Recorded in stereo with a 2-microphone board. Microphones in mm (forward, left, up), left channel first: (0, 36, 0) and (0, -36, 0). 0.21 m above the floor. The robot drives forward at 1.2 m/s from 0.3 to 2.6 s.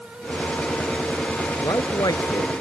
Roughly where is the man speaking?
Left.